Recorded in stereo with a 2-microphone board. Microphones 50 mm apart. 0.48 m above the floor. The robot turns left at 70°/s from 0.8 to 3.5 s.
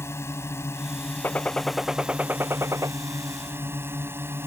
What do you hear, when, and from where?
0.0 s a drone: 65° left; by 4.5 s 125° right
1.2 s a gunshot: 40° left; by 2.9 s 80° right